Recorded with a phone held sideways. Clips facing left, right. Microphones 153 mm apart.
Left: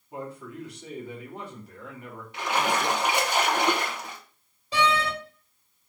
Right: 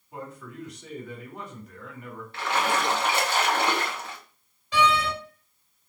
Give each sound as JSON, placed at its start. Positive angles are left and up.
{"t": 0.1, "sound": "a man speaking", "side_deg": 35, "distance_m": 2.0}
{"t": 2.3, "sound": "a splash", "side_deg": 15, "distance_m": 0.9}
{"t": 4.7, "sound": "a door slam", "side_deg": 35, "distance_m": 2.5}